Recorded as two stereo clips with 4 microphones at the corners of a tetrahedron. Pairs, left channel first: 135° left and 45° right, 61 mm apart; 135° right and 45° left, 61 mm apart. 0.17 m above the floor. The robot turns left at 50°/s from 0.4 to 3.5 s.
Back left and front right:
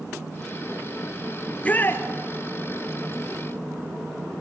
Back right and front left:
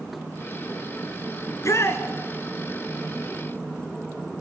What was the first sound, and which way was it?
A shout, 150° right.